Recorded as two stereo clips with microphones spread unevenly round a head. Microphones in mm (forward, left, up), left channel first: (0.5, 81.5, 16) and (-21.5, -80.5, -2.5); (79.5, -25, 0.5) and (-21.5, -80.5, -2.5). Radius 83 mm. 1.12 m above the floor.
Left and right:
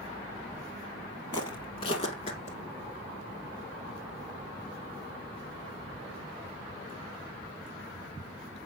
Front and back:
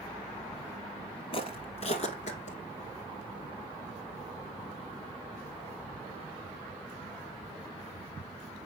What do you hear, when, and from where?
1.3 s footsteps: 30° left, 1.6 m; by 2.6 s 40° left, 2.5 m